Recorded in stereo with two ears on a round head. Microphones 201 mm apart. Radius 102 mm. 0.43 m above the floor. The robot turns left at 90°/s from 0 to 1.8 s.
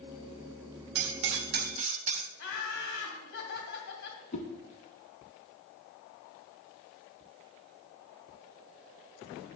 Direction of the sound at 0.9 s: 65° right.